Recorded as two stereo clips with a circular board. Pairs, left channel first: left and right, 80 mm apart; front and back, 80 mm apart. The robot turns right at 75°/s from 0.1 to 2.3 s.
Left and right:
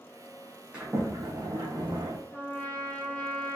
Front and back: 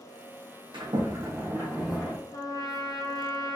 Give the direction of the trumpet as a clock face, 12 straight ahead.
11 o'clock.